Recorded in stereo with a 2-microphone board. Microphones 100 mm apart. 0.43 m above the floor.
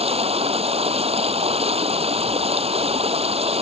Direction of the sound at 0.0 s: 85° right.